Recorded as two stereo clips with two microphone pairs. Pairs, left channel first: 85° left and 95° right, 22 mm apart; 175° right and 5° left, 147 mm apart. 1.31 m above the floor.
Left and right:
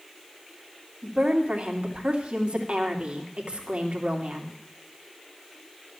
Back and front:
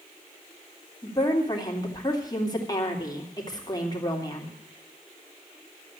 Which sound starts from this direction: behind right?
A woman speaking, at 1.0 s.